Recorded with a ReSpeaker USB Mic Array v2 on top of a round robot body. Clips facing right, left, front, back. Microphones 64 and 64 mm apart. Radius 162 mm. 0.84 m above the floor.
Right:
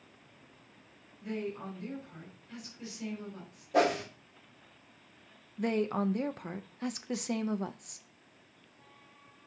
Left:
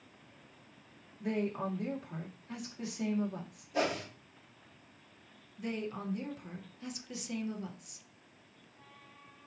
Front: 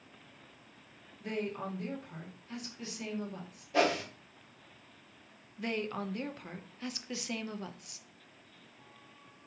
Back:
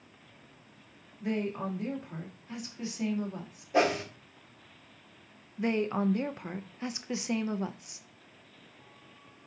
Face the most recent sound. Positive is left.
turn(degrees=-115)